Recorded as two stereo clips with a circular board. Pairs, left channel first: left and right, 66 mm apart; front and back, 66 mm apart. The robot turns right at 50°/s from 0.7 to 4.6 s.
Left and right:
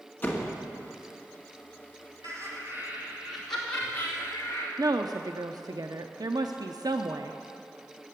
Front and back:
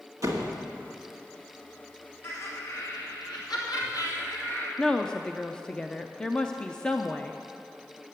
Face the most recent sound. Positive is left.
turn(degrees=-75)